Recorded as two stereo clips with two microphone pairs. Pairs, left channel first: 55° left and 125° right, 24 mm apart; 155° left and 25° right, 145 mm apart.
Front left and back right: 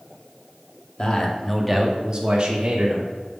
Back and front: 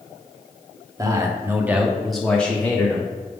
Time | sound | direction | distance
1.0 | a man speaking | 30° left | 0.9 m